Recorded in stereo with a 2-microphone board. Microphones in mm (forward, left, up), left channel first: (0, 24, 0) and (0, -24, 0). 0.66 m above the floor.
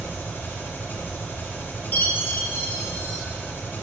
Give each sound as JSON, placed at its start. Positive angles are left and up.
{"t": 0.0, "sound": "an engine running", "side_deg": 50, "distance_m": 2.0}
{"t": 1.9, "sound": "a chime", "side_deg": 45, "distance_m": 1.4}